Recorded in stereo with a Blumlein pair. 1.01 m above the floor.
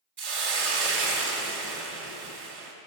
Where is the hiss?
55° right, 1.6 m.